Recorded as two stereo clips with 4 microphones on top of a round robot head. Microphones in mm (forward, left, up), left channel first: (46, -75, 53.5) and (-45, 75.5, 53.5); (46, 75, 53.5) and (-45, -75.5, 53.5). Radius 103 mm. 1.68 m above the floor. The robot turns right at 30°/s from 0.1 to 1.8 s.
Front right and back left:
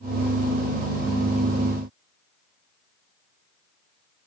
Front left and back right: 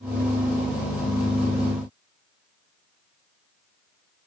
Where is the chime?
I don't hear a chime.